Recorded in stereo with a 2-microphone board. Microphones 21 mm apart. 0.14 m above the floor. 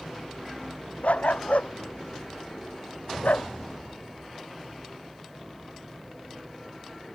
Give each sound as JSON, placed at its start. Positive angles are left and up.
{"t": 1.0, "sound": "a dog barking", "side_deg": 85}